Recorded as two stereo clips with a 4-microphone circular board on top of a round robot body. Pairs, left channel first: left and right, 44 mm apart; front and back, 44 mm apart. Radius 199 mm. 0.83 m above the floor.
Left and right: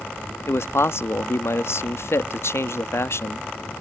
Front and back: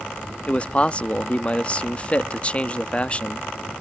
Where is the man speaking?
65° left.